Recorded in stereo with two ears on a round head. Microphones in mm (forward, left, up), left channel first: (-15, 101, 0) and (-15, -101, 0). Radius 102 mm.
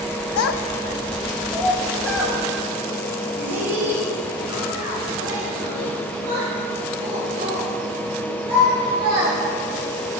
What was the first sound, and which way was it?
A child speaking, 70° left (ahead or behind).